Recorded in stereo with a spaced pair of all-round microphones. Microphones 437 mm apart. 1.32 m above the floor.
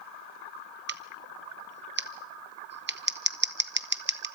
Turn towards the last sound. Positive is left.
turn(degrees=-25)  # may be behind; listen again after turning